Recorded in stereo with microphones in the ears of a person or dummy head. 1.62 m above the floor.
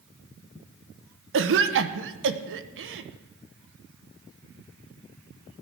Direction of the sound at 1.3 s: 70° right (ahead or behind).